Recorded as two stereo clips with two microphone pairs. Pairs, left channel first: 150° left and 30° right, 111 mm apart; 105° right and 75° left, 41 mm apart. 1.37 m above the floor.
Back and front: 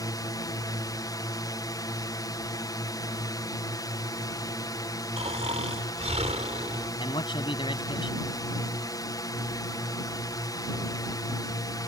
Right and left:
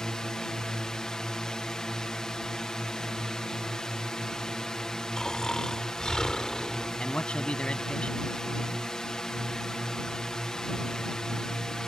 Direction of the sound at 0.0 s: 175° right.